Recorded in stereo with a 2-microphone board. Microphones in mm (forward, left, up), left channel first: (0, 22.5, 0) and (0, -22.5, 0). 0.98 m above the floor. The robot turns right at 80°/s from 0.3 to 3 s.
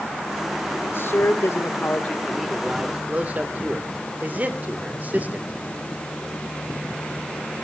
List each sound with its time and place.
0.8 s a man speaking: 45° left, 2.5 m; by 5.5 s 140° right, 2.5 m